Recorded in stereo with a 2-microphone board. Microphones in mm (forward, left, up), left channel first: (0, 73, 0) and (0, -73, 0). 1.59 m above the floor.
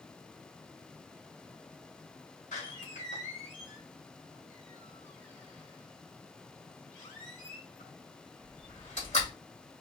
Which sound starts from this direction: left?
A door slam, at 2.5 s.